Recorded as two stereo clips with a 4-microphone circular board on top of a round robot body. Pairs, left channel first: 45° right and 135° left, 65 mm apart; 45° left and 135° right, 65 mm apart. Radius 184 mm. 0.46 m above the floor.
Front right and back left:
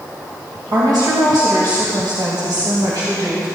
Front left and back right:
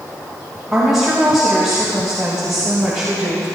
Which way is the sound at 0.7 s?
140° left.